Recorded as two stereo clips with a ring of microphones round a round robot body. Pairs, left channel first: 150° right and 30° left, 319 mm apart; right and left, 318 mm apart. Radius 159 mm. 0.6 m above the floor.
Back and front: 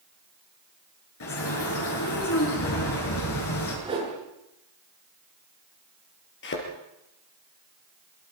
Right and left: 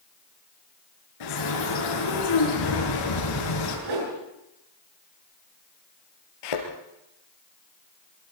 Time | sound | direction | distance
1.2 | a bird | 100° right | 8.5 m
3.9 | a whoosh | 105° left | 9.5 m
6.4 | a thud | 95° right | 4.5 m